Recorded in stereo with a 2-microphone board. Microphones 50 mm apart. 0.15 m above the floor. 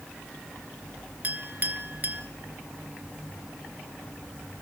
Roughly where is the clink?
Right.